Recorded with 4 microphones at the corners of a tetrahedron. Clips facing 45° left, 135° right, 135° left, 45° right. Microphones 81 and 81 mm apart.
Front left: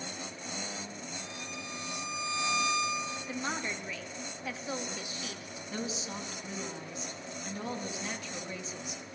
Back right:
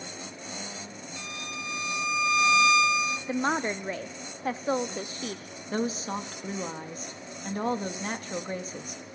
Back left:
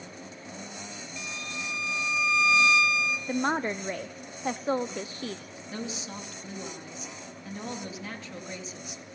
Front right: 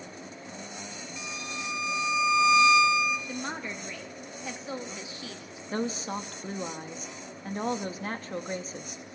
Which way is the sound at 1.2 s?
120° right.